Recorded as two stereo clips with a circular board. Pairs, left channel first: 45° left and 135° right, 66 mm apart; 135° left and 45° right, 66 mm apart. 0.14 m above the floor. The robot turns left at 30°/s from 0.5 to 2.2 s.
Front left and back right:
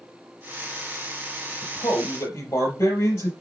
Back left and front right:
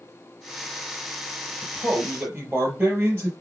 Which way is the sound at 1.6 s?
35° left.